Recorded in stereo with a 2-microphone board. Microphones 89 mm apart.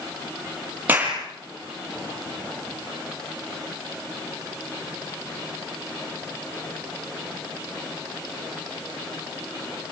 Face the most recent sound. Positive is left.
turn(degrees=-20)  # may be behind; listen again after turning